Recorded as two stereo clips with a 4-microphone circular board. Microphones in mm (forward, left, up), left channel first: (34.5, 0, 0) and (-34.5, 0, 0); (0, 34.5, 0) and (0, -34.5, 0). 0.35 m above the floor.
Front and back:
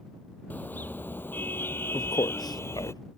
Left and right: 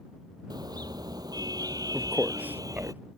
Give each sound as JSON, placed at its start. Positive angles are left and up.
{"t": 0.5, "sound": "a car horn", "azimuth_deg": -65}
{"t": 1.9, "sound": "a man speaking", "azimuth_deg": -25}